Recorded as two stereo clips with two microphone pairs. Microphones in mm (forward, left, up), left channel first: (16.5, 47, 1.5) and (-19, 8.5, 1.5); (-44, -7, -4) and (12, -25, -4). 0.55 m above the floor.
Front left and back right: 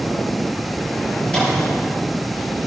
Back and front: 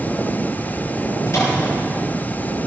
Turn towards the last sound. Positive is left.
turn(degrees=120)